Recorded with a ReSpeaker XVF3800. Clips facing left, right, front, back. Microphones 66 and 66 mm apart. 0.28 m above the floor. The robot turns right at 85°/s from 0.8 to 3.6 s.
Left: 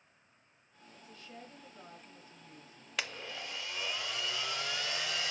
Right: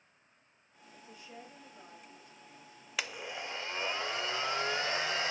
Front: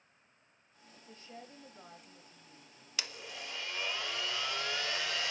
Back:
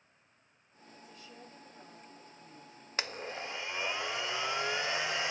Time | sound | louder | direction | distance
0.9 | a woman speaking | right 1 dB, front 1 dB | 50° right | 1.2 m
3.0 | a blender | right 1 dB, back 6 dB | 175° right | 0.5 m